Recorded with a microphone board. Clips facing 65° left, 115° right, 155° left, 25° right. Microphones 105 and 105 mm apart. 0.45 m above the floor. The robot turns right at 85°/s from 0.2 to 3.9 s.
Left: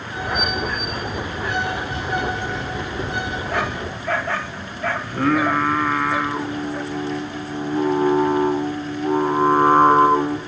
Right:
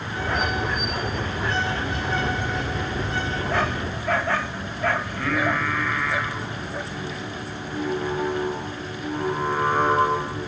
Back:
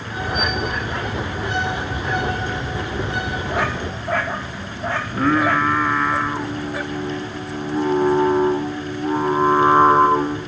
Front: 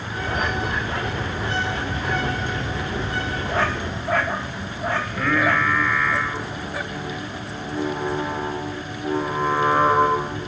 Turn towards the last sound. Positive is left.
turn(degrees=110)